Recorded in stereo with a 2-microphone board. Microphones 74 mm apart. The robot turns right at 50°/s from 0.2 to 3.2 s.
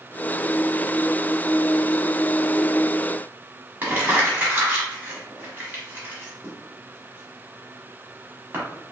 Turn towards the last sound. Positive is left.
turn(degrees=-30)  # may be behind; listen again after turning